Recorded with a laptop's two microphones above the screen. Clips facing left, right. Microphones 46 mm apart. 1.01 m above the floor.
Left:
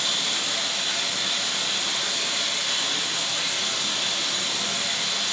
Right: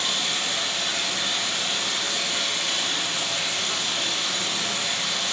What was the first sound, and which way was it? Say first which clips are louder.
Running water: right 1 dB; 40° right (ahead or behind).